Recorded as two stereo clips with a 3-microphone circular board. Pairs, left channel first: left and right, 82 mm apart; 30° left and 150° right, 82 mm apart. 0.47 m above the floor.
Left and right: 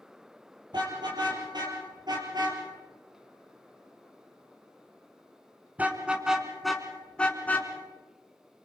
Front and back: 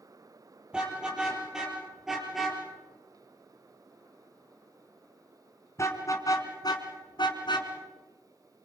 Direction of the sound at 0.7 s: 70° right.